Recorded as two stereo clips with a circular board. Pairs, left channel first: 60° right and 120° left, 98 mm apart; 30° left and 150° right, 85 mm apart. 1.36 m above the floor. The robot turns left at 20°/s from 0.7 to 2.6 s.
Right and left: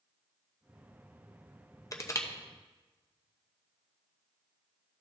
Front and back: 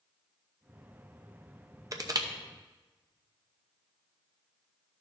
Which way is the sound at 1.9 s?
110° right.